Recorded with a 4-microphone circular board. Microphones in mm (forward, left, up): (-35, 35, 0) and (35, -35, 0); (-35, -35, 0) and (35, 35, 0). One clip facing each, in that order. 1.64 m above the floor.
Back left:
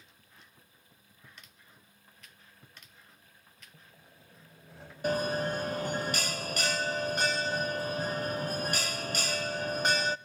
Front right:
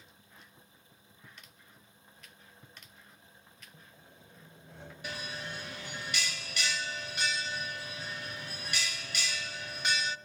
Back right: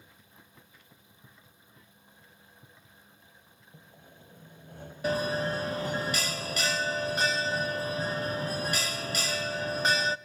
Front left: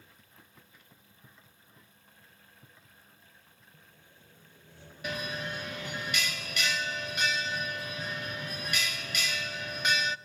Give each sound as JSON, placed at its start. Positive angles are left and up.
{"t": 3.7, "sound": "sawing", "azimuth_deg": -140, "distance_m": 2.0}
{"t": 5.0, "sound": "a bell", "azimuth_deg": 175, "distance_m": 0.5}